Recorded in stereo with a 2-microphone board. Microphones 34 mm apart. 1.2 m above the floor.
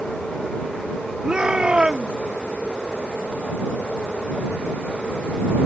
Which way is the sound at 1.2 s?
25° right (ahead or behind).